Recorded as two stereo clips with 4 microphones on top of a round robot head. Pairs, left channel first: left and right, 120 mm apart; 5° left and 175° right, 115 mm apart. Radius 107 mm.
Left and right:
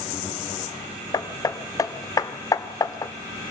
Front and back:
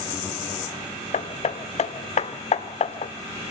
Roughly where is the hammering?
Ahead left.